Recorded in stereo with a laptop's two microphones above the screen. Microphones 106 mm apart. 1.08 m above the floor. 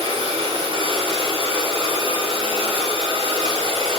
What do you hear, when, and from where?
0.0 s a machine running: 60° right (ahead or behind), 0.8 m